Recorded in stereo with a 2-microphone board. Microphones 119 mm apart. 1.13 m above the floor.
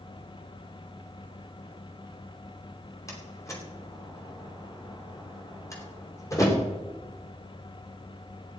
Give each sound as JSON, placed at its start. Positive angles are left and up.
{"t": 3.1, "sound": "a door slam", "side_deg": 25, "distance_m": 2.5}